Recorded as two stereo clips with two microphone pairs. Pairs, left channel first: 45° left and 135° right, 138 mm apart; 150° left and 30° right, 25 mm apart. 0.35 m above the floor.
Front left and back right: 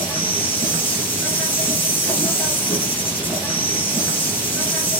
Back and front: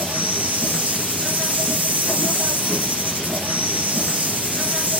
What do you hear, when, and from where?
0.0 s an insect: 35° right, 3.5 m